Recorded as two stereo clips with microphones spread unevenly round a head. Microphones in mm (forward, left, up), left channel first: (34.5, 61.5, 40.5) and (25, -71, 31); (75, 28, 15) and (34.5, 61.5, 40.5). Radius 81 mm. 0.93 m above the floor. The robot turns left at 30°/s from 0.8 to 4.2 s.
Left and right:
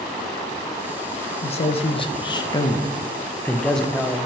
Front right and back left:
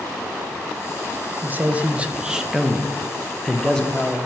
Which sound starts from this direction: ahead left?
A man speaking, at 1.4 s.